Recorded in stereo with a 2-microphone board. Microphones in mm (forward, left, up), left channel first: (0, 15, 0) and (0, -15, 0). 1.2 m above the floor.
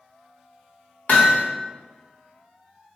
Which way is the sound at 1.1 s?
60° left (ahead or behind).